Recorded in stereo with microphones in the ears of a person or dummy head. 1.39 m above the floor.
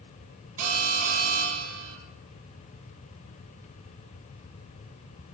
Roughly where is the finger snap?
No finger snap in this recording.